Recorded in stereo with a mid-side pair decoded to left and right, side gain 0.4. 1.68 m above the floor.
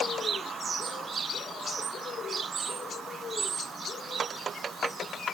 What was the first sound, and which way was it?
Only background noise.